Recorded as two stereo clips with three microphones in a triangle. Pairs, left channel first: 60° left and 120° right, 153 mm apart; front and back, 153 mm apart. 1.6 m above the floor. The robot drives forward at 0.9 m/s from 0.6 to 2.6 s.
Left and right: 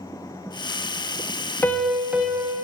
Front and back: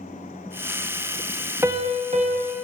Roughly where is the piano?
Behind left.